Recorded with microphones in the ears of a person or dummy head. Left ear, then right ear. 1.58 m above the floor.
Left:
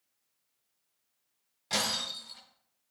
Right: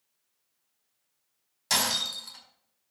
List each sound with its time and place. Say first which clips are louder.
1.7 s breaking glass: right 4 dB; 45° right (ahead or behind), 5 m